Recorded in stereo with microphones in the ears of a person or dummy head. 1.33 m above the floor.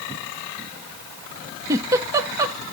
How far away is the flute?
I don't hear a flute.